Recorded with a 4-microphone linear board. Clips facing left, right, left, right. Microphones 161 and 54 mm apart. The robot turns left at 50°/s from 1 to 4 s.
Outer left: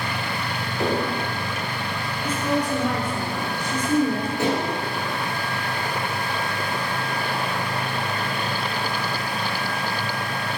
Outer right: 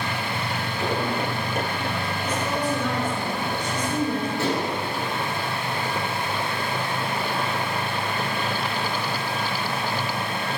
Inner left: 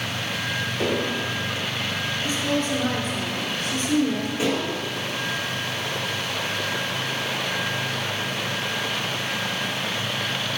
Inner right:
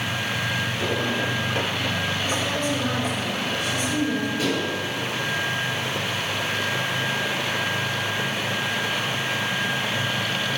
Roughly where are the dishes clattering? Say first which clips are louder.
Outer left 4 dB, even; centre.